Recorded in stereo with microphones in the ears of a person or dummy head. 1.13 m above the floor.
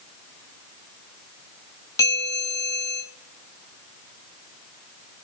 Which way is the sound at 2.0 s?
15° left (ahead or behind).